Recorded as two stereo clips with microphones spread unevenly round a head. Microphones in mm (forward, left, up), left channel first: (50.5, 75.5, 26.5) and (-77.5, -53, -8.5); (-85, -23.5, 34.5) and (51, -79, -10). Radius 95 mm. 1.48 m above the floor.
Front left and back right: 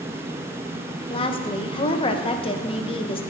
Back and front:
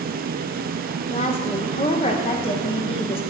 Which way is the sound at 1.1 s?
105° left.